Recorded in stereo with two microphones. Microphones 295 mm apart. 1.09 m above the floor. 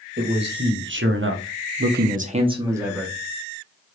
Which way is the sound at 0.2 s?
35° right (ahead or behind).